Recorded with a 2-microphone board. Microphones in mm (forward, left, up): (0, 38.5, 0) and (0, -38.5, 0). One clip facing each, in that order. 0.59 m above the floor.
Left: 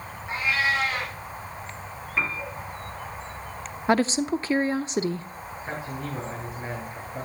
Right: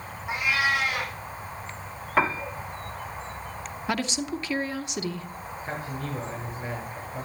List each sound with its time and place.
0.3 s a cat meowing: 15° right (ahead or behind), 4.5 m
2.2 s a piano: 70° right (ahead or behind), 1.0 m
3.9 s a woman speaking: 35° left (ahead or behind), 0.7 m
5.6 s a man speaking: 15° left (ahead or behind), 7 m